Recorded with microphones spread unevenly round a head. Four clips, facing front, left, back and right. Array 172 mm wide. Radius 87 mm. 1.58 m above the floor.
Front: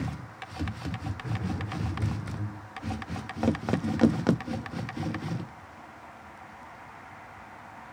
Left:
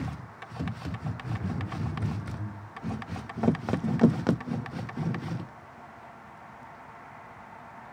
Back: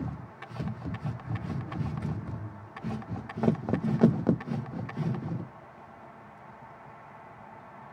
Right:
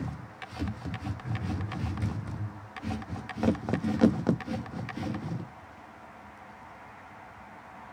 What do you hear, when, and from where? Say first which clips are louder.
1.2 s laughter: left 2 dB, front 3 dB; 25° left, 6.5 m; by 2.6 s 35° left, 7.5 m